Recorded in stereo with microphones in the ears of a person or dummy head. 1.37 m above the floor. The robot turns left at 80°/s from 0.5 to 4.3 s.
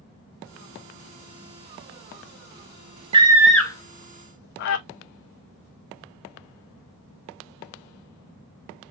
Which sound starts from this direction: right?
A scream, at 3.1 s.